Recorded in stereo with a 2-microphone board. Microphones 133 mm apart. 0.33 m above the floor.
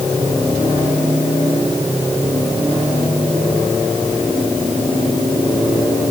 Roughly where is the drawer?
I don't hear a drawer.